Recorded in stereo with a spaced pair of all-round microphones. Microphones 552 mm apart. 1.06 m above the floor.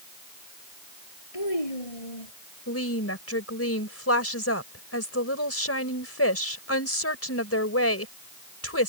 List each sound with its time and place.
1.3 s a child speaking: 75° left (ahead or behind)
2.7 s a woman speaking: 25° left (ahead or behind)